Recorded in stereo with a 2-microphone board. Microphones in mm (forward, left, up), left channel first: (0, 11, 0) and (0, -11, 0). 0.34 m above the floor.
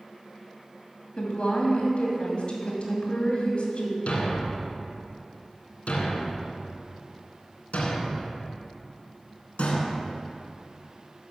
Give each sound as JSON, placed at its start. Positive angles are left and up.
{"t": 1.2, "sound": "a woman speaking", "side_deg": 60, "distance_m": 2.5}
{"t": 4.1, "sound": "a thud", "side_deg": 80, "distance_m": 1.5}